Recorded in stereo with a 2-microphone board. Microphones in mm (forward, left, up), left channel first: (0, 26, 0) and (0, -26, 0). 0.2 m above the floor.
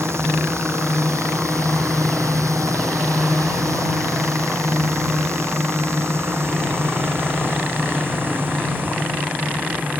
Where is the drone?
60° right (ahead or behind); by 10.0 s 35° right (ahead or behind).